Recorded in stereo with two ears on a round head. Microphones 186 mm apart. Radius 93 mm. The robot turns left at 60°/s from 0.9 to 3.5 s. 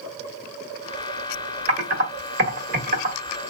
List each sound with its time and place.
1.7 s typing on a keyboard: 35° right (ahead or behind), 1.4 m